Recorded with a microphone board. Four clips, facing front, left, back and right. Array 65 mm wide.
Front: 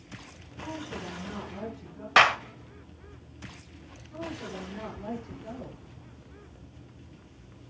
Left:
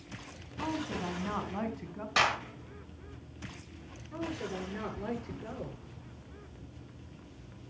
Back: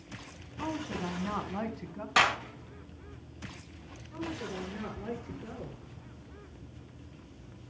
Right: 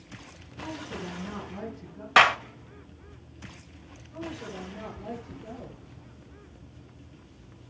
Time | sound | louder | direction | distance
0.6 | a woman speaking | left 2 dB, back 3 dB | 140° left | 3.5 m
2.2 | a clap | right 9 dB, front 6 dB | 55° right | 1.7 m
4.1 | a woman speaking | left 1 dB, even | 100° left | 8.5 m